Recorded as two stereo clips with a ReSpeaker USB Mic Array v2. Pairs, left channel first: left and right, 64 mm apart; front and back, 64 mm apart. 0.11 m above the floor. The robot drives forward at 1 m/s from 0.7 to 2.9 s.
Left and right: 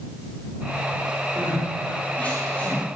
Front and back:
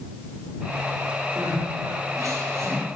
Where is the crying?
155° left, 7 m; by 3.0 s 160° left, 8.5 m.